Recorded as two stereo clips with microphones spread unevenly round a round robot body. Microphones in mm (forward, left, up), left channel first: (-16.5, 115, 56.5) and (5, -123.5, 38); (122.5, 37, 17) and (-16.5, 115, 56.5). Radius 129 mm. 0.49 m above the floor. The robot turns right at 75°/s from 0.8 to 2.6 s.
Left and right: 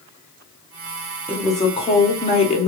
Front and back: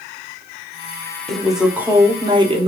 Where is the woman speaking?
15° left, 0.7 m; by 2.7 s 110° left, 0.7 m.